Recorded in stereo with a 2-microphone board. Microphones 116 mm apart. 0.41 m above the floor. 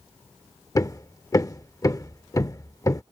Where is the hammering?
30° left (ahead or behind).